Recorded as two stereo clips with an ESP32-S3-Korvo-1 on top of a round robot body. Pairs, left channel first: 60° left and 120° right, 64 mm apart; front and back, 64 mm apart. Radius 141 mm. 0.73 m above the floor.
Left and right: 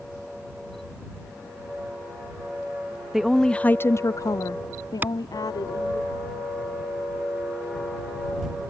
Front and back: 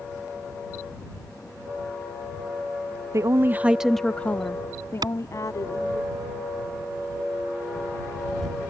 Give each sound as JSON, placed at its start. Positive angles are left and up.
{"t": 3.1, "sound": "a woman speaking", "azimuth_deg": 155}
{"t": 5.0, "sound": "a clap", "azimuth_deg": 175}